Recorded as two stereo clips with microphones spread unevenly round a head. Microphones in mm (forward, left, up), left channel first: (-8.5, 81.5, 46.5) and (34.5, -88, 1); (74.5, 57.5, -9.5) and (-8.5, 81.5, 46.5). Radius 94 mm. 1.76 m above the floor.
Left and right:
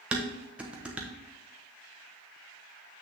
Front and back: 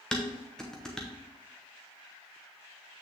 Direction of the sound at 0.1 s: Straight behind.